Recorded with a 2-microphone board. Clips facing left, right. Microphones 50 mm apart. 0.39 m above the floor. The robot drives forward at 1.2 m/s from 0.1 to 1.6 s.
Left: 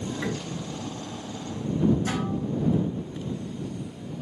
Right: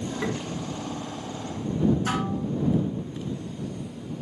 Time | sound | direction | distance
0.2 | tapping | 30° right (ahead or behind) | 3 m
2.1 | dishes clattering | 80° right | 3 m